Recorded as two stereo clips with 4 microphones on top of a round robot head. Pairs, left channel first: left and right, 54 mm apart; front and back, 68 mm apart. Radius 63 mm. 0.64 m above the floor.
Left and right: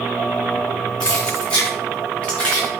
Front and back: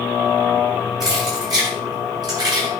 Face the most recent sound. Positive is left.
turn(degrees=160)